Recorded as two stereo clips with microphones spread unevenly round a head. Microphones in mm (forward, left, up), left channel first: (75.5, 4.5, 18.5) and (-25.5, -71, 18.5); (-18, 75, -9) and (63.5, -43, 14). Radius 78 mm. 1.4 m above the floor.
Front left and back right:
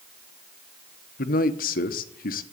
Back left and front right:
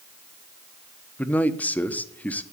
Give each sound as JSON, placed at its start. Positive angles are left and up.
{"t": 1.2, "sound": "a man speaking", "azimuth_deg": 45, "distance_m": 1.1}